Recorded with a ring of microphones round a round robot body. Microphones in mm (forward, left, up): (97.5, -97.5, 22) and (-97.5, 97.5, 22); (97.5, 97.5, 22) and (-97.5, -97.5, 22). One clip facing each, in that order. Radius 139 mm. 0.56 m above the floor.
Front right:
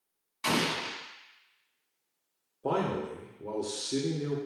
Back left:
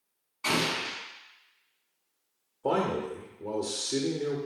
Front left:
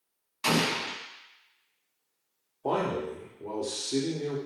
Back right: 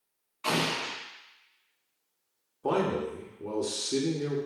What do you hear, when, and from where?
0.4 s an explosion: 15° left, 0.9 m
2.6 s a man speaking: 135° right, 0.8 m